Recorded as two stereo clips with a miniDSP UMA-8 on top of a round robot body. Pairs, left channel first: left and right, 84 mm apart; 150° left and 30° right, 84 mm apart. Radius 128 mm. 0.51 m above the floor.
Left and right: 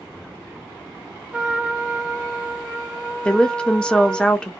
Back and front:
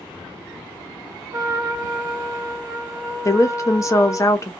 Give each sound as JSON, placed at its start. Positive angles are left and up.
{"t": 1.3, "sound": "a trumpet", "azimuth_deg": -15, "distance_m": 1.4}
{"t": 3.2, "sound": "a woman speaking", "azimuth_deg": 160, "distance_m": 0.7}